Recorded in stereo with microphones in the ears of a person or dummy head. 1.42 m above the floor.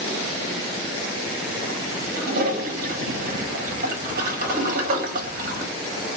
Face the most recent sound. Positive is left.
turn(degrees=-50)  # may be behind; listen again after turning